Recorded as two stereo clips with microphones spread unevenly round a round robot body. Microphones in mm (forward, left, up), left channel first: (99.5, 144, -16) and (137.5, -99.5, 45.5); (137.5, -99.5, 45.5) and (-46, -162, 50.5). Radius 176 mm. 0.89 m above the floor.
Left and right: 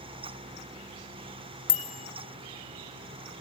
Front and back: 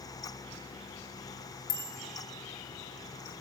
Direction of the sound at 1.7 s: 70° left.